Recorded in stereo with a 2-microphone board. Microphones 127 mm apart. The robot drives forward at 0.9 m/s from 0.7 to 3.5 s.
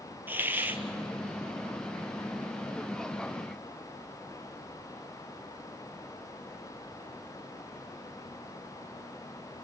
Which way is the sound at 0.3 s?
15° right (ahead or behind).